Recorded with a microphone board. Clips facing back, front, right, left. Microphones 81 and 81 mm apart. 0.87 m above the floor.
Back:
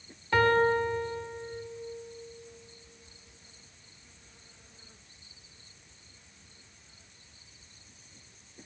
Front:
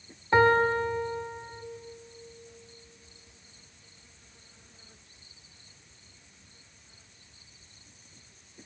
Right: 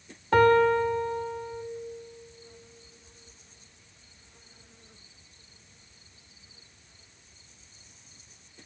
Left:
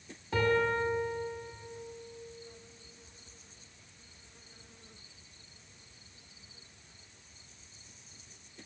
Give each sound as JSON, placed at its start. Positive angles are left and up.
{"t": 0.3, "sound": "a piano", "azimuth_deg": -65, "distance_m": 1.6}